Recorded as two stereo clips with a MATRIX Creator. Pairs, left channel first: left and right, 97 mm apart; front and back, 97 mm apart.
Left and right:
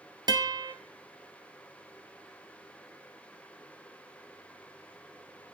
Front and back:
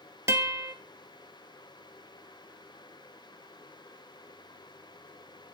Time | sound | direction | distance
0.3 | a guitar | 125° right | 0.7 m